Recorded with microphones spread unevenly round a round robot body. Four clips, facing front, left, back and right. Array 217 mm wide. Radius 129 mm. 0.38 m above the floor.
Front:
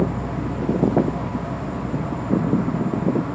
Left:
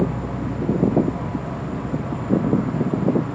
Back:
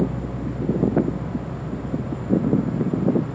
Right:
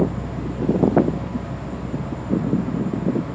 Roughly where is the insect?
Ahead.